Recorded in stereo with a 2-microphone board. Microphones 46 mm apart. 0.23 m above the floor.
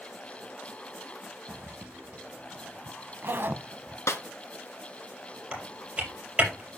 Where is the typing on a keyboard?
20° right (ahead or behind), 4.5 m.